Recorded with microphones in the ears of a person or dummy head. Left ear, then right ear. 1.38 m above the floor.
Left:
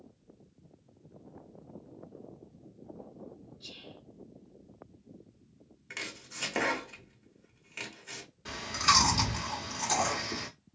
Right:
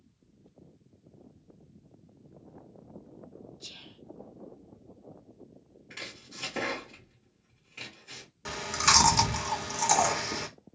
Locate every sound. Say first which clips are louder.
3.6 s whispering: even; 60° right (ahead or behind), 0.9 m
5.9 s chopping: left 2 dB; 45° left (ahead or behind), 0.9 m
8.4 s chewing: right 2 dB; 50° right (ahead or behind), 0.9 m